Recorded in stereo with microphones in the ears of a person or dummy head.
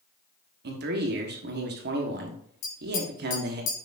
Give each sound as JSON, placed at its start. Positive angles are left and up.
{"t": 0.6, "sound": "a man speaking", "side_deg": -55, "distance_m": 1.2}
{"t": 2.6, "sound": "tapping", "side_deg": 45, "distance_m": 2.0}